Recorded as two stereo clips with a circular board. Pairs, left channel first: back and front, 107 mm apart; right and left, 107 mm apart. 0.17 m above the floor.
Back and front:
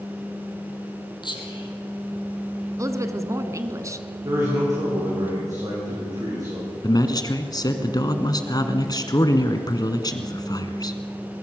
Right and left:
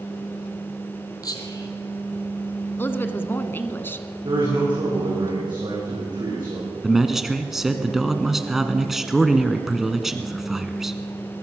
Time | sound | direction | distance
1.2 | whispering | 140° right | 4 m
2.8 | a woman speaking | 35° right | 1.3 m
4.2 | a man speaking | 50° left | 8 m
6.8 | a man speaking | 175° left | 1.6 m